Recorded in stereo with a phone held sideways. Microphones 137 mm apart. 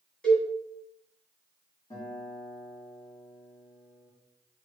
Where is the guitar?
35° left (ahead or behind), 1.9 m.